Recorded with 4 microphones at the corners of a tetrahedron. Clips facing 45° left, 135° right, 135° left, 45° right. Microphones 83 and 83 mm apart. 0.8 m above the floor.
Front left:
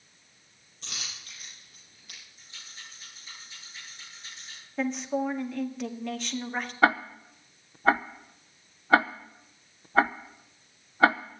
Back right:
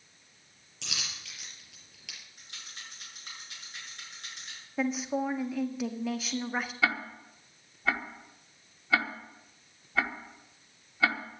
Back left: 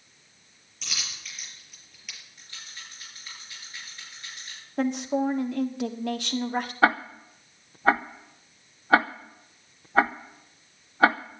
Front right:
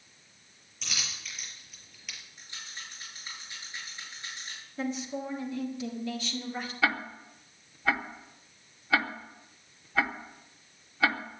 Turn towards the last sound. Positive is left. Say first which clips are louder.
# front left 11 dB, back left 7 dB
turn(degrees=90)